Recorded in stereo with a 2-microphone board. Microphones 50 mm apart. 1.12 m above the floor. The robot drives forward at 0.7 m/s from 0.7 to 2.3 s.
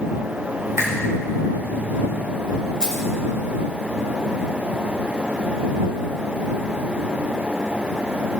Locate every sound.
0.8 s a finger snap: 80° right, 4 m; by 0.9 s 75° right (ahead or behind), 4 m
2.8 s keys jangling: 20° right (ahead or behind), 3.5 m